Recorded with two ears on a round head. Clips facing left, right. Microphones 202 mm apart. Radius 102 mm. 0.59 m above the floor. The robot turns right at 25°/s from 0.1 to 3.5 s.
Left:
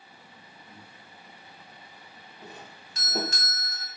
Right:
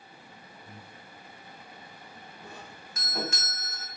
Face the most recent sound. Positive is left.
turn(degrees=35)  # may be behind; listen again after turning